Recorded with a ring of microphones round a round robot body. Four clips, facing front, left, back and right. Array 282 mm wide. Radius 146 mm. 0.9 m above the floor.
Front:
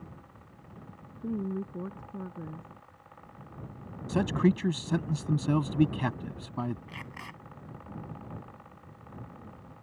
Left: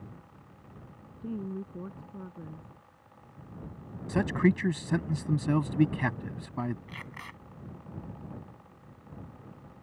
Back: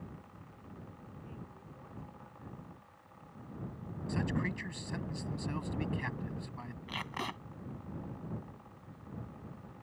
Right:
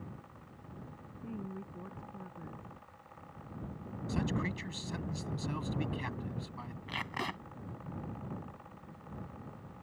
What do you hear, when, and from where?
1.2 s a woman speaking: 20° left
4.1 s a man speaking: 45° left
6.9 s tape being pulled: 125° right